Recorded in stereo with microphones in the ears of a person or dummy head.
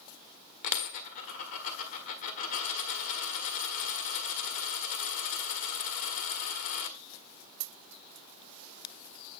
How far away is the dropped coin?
About 1.5 m.